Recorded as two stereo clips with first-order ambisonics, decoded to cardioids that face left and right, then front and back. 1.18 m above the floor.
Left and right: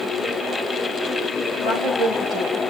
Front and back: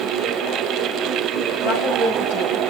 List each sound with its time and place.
1.6 s a woman speaking: 5° right, 8 m; by 2.6 s 10° right, 7 m